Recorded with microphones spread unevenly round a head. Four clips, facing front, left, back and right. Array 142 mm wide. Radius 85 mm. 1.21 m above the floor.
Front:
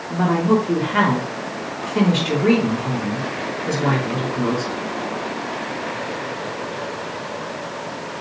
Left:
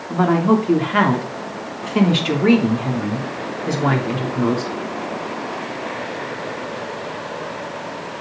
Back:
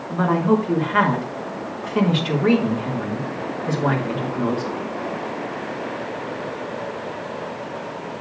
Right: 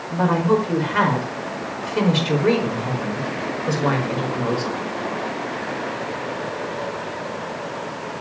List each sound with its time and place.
0.1 s a woman speaking: 95° left, 3 m